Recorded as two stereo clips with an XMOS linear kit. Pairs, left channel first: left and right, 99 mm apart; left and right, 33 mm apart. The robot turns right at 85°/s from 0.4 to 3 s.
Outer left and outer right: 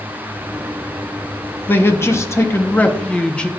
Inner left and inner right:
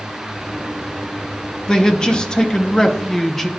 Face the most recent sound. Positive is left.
turn(degrees=10)  # may be behind; listen again after turning